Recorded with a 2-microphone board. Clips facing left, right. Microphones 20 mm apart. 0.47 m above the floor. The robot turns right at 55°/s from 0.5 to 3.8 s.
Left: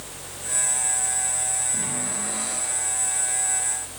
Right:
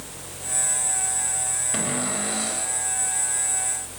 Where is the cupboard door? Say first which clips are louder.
Right 3 dB; 60° right, 6 m; by 2.7 s 5° right, 6 m.